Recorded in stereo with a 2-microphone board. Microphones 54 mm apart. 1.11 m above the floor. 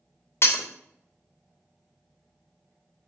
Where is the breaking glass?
55° left (ahead or behind), 0.5 m.